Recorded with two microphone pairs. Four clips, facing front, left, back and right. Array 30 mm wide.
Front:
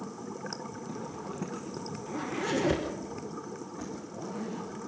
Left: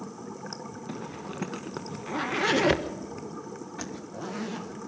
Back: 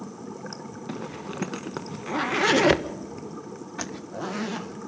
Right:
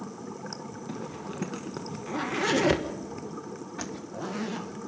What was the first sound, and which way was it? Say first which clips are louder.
A zipper: right 1 dB, back 7 dB; 170° left.